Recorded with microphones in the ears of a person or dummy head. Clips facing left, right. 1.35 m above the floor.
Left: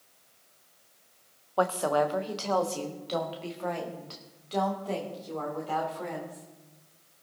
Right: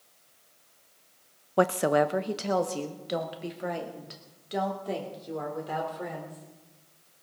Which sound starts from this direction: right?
A woman speaking, at 1.6 s.